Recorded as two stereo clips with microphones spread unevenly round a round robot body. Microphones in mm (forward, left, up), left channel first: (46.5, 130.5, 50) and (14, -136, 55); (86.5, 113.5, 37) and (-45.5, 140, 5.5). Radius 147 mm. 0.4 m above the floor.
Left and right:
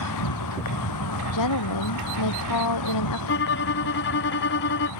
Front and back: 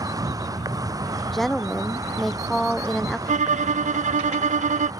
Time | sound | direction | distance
0.0 | an insect | 105° left | ?
1.3 | a woman speaking | 75° left | ?
3.3 | a violin | 135° left | ?